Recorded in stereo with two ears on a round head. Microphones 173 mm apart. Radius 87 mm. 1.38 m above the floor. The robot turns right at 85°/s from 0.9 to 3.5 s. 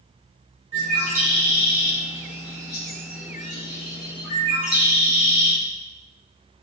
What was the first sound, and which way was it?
A bird, 35° right (ahead or behind).